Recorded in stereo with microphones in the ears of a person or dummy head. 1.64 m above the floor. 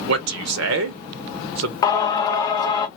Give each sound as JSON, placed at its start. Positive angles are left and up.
{"t": 0.1, "sound": "a man speaking", "side_deg": -70, "distance_m": 0.7}
{"t": 1.8, "sound": "singing", "side_deg": 20, "distance_m": 0.5}